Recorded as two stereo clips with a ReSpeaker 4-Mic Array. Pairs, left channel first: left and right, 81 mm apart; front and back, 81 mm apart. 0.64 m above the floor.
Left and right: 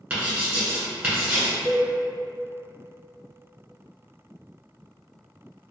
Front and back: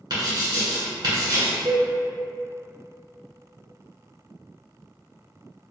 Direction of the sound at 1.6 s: 145° right.